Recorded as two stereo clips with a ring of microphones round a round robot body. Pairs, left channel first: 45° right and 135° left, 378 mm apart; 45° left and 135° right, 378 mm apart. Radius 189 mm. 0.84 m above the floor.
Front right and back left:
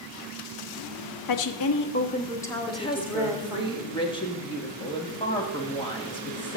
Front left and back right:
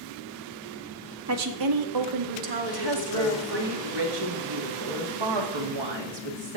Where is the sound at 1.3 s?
80° right, 1.0 m; by 3.7 s 145° right, 2.5 m.